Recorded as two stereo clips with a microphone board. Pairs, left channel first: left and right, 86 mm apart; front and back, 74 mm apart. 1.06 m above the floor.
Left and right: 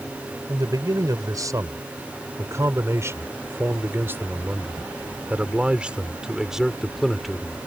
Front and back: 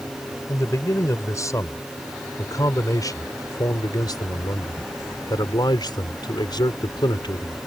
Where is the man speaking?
50° right; by 7.6 s straight ahead.